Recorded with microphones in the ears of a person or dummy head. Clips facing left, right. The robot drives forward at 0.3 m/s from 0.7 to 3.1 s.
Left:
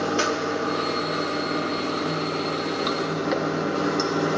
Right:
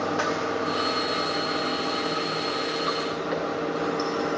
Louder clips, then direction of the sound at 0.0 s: Left 2 dB; 45° left (ahead or behind).